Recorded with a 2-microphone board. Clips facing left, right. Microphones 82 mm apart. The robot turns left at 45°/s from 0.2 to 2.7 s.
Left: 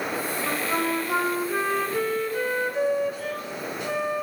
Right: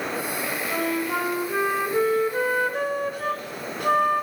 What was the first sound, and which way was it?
A flute, 45° left.